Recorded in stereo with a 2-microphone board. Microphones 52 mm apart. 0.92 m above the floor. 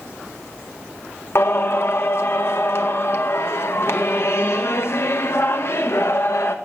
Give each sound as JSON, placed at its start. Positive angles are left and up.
{"t": 1.4, "sound": "singing", "side_deg": 55, "distance_m": 0.8}